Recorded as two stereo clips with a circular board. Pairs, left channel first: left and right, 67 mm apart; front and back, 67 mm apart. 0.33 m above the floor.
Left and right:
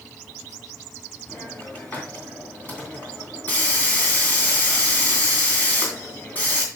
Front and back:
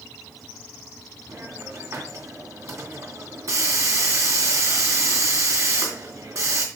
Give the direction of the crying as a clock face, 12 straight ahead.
No crying in this recording.